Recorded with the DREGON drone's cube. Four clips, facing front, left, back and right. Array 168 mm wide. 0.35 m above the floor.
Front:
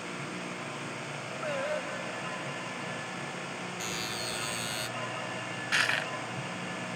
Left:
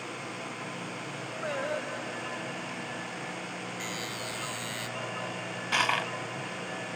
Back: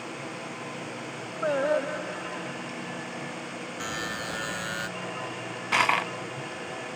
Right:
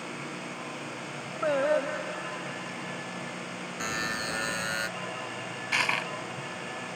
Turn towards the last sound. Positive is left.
turn(degrees=170)